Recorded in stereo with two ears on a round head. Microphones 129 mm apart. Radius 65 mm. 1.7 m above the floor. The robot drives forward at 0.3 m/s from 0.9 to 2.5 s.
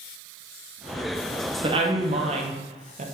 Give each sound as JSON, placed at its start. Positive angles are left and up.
{"t": 1.6, "sound": "a woman speaking", "side_deg": -35, "distance_m": 0.8}